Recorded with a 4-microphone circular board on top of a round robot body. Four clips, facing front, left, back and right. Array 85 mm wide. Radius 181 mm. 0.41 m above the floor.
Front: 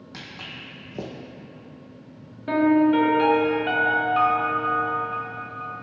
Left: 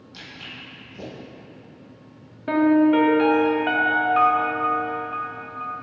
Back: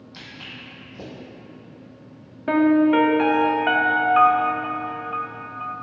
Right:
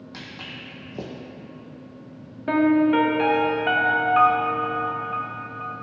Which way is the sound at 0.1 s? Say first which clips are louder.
Even, front 1 dB; 40° right.